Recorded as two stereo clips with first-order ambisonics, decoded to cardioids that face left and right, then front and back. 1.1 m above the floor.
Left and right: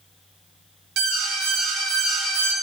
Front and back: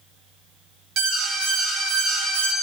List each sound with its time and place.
1.0 s an alarm: 130° right, 0.9 m